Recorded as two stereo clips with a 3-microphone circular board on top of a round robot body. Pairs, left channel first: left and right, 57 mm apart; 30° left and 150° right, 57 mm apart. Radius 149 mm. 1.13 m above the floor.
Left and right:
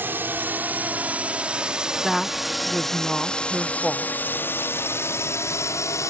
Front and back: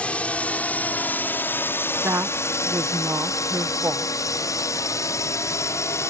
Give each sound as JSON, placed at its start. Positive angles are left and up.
{"t": 0.0, "sound": "a drone", "azimuth_deg": -35}
{"t": 2.0, "sound": "a woman speaking", "azimuth_deg": 180}